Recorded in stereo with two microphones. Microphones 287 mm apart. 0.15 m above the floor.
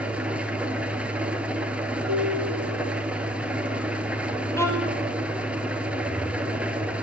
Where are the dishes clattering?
75° right (ahead or behind), 3.5 m.